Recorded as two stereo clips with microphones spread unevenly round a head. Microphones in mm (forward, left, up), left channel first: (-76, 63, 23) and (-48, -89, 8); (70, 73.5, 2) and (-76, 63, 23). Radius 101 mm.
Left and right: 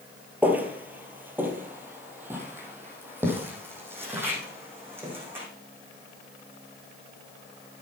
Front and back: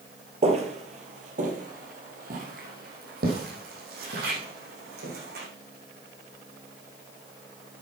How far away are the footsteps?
About 2 m.